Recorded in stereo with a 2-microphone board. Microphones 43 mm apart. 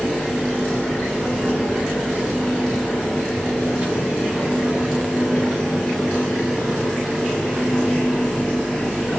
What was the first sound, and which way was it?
A child speaking, 45° right (ahead or behind).